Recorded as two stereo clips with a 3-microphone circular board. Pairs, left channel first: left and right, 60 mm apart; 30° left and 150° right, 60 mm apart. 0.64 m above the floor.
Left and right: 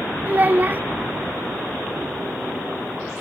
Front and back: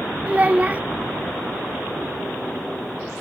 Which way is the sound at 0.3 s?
110° right.